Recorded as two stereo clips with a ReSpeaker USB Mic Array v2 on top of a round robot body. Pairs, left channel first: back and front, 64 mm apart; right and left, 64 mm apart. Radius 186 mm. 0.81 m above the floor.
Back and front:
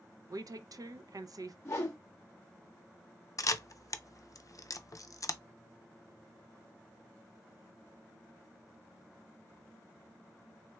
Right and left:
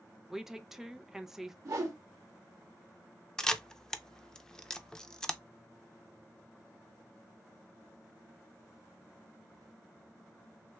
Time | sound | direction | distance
0.3 | a woman speaking | 10° left | 0.5 m
1.6 | a whoosh | 130° left | 0.6 m
3.4 | a camera shutter | 165° right | 0.6 m